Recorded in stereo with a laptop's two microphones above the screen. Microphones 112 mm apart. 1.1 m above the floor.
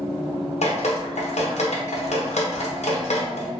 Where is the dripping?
80° left, 0.6 m.